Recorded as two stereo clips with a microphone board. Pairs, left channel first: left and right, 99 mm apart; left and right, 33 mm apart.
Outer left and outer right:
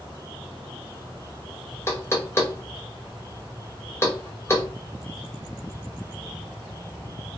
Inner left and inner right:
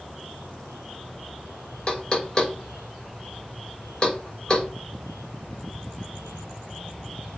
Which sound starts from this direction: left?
Knocking, at 1.9 s.